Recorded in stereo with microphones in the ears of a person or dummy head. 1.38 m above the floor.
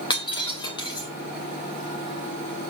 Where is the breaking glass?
30° left (ahead or behind), 2.5 m.